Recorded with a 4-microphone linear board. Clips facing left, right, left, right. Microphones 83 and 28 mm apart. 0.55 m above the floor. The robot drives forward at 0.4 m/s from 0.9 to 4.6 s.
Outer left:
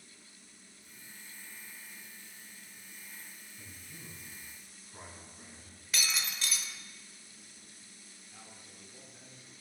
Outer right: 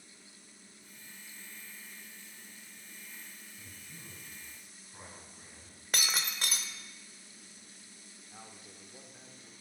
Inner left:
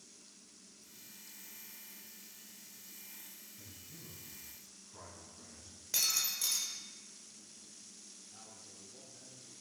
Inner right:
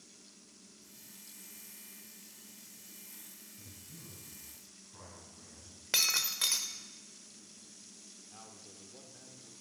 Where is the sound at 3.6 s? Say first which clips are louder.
Outer left 3 dB, inner right 1 dB; centre (ahead or behind), 5 m.